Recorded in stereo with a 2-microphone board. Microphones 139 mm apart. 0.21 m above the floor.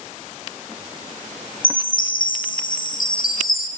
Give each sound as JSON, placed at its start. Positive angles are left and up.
{"t": 1.6, "sound": "a chime", "side_deg": 85, "distance_m": 3.0}